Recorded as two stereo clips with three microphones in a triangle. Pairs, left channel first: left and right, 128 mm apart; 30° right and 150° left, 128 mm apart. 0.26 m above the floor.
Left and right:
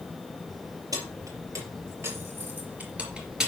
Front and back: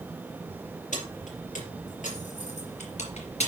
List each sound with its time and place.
0.9 s keys jangling: 30° right, 4 m; by 3.5 s 5° right, 3 m